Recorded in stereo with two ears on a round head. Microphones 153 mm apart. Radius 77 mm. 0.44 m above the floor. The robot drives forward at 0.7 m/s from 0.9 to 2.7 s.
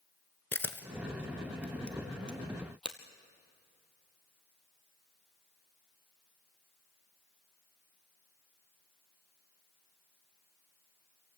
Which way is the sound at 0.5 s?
15° left (ahead or behind).